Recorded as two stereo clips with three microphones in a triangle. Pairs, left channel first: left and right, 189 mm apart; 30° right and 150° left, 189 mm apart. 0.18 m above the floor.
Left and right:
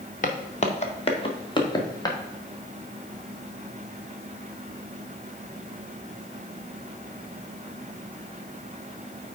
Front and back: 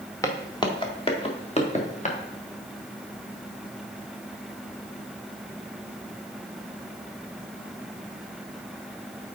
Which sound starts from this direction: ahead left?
Footsteps, at 0.2 s.